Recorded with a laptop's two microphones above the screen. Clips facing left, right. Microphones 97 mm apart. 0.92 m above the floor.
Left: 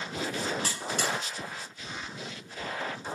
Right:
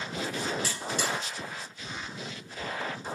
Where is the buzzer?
55° left (ahead or behind), 1.5 m.